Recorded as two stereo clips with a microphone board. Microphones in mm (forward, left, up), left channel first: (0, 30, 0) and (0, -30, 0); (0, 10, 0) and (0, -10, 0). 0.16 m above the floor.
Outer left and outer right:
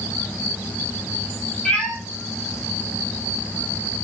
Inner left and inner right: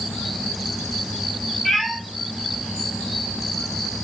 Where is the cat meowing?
15° left (ahead or behind), 1.6 m.